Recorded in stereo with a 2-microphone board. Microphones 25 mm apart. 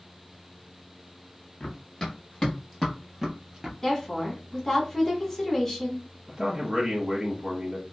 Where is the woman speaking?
10° left (ahead or behind), 1.3 m.